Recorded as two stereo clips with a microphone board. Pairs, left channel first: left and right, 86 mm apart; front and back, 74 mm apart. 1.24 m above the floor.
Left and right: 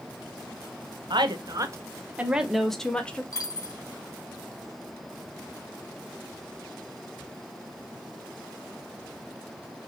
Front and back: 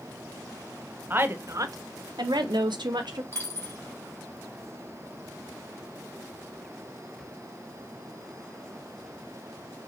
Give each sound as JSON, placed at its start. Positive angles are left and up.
{"t": 1.1, "sound": "a woman speaking", "azimuth_deg": -115, "distance_m": 0.8}
{"t": 3.3, "sound": "a dropped coin", "azimuth_deg": 45, "distance_m": 2.5}